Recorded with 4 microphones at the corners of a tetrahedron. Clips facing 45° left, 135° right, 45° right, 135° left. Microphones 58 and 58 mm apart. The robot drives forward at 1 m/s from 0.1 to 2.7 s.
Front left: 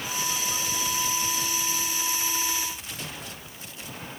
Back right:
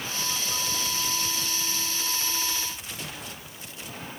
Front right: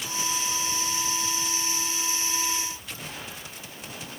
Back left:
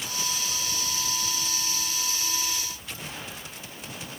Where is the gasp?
No gasp in this recording.